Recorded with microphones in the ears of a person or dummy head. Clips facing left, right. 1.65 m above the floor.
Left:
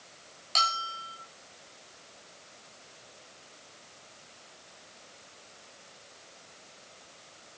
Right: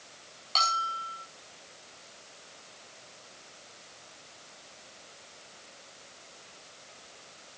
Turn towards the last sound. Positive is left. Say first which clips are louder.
# right 2 dB
turn(degrees=20)  # may be behind; listen again after turning